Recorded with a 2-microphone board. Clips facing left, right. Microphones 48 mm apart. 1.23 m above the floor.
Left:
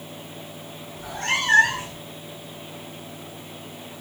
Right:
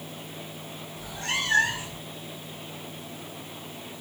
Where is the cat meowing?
55° left (ahead or behind), 1.8 m; by 2.0 s 65° left (ahead or behind), 1.6 m.